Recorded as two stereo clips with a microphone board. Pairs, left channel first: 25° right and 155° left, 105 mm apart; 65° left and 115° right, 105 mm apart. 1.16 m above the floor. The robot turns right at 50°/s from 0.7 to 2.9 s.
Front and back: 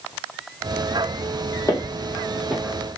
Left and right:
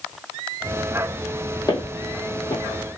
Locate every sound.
1.7 s footsteps: 25° left, 1.7 m; by 2.6 s 75° left, 1.7 m